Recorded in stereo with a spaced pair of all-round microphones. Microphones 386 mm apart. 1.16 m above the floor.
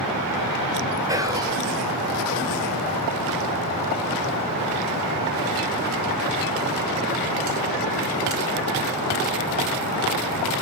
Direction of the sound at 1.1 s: 10° right (ahead or behind).